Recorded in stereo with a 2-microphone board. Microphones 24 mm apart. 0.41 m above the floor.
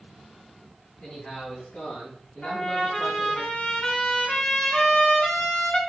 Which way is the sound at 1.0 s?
55° left (ahead or behind).